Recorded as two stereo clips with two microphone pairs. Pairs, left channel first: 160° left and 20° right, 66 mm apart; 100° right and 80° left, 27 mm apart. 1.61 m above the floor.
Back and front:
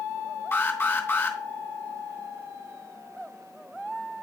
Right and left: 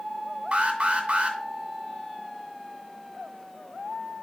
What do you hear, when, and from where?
0.5 s an alarm: 115° left, 1.9 m